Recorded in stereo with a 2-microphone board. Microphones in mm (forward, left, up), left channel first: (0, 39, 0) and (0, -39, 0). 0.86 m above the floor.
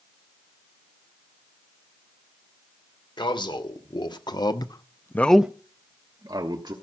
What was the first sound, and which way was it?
A man speaking, 80° left.